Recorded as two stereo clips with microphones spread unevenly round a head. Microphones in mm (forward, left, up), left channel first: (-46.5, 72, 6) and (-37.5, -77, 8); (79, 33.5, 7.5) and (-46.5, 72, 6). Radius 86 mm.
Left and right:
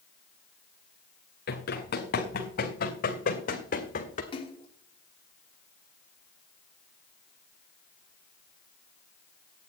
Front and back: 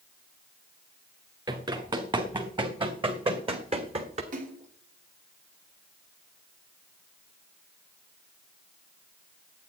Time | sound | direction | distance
1.5 | running footsteps | 105° left | 3.5 m
4.3 | a splash | 145° left | 2.5 m